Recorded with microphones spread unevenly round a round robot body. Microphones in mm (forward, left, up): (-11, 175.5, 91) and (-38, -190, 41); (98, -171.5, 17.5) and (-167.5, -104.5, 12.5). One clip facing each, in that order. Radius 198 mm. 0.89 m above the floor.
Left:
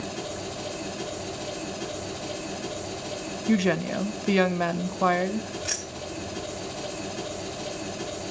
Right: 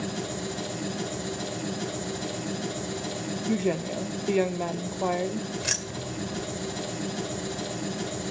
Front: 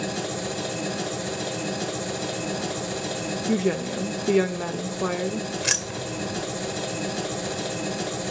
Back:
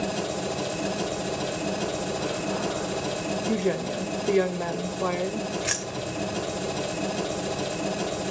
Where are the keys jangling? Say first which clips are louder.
Right 1 dB, even; 50° right, 2 m.